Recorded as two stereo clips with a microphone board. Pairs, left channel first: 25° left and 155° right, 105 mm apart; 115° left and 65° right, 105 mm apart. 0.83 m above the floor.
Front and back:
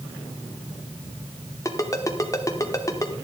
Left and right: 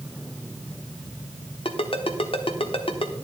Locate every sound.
1.6 s a ringtone: 80° left, 1.2 m